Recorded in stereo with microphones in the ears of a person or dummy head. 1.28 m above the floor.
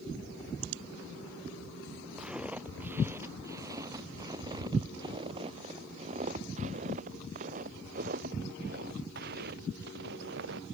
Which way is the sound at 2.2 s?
5° right (ahead or behind).